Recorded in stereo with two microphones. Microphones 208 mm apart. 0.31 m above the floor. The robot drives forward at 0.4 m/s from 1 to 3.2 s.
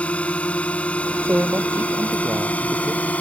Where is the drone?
5° left (ahead or behind).